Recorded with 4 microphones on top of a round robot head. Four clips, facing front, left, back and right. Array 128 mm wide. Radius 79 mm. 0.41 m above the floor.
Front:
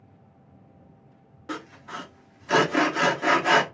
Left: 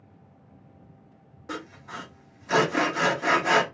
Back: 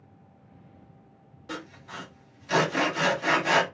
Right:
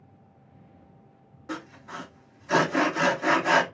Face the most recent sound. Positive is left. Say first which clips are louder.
# even, front 3 dB
turn(degrees=10)